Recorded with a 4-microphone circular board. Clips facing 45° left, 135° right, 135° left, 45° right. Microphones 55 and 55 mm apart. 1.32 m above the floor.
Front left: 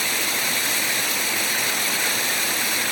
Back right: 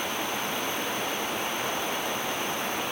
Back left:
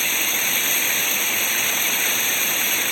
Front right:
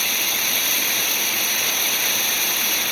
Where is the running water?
60° left.